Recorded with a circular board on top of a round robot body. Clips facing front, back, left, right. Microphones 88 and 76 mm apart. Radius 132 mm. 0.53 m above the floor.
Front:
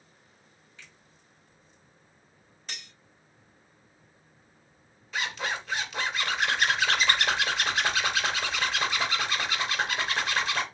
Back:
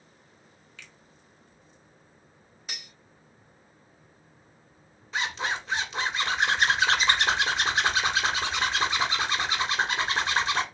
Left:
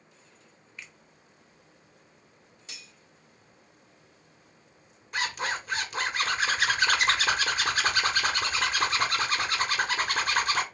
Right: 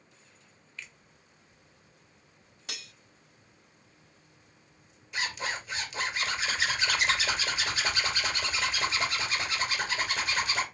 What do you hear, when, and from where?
0.8 s a finger snap: 165° left, 1.5 m
2.7 s cutlery clinking: 95° right, 0.6 m
5.1 s a zipper: 125° left, 2 m